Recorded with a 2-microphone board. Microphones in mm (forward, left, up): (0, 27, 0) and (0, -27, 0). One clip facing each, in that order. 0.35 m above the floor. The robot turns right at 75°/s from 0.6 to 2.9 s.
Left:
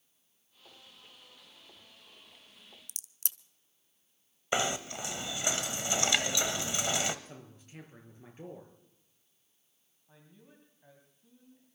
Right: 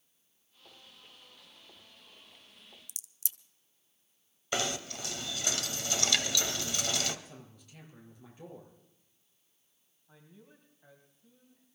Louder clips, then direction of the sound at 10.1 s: Right 1 dB; centre (ahead or behind).